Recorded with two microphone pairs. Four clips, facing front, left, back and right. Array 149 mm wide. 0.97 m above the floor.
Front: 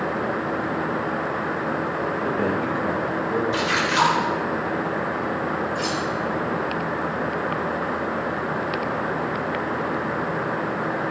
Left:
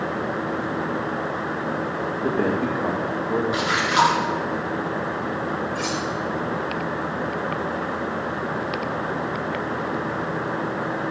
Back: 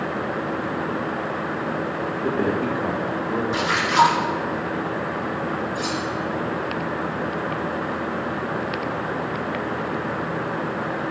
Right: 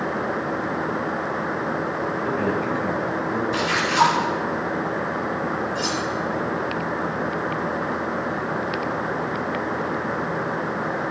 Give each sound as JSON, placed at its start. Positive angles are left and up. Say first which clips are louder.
{"t": 2.1, "sound": "a man speaking", "louder": "left 3 dB, back 3 dB", "azimuth_deg": 120, "distance_m": 1.9}
{"t": 3.5, "sound": "a splash", "louder": "right 1 dB, back 2 dB", "azimuth_deg": 135, "distance_m": 2.0}
{"t": 5.8, "sound": "cutlery clinking", "louder": "right 1 dB, front 1 dB", "azimuth_deg": 55, "distance_m": 2.0}